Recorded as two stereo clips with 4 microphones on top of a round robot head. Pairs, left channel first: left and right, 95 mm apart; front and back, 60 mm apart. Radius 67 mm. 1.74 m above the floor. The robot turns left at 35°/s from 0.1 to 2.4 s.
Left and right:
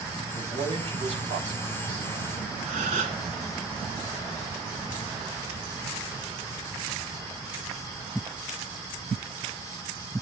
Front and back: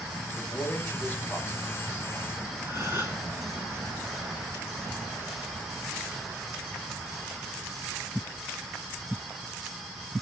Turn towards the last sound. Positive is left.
turn(degrees=-105)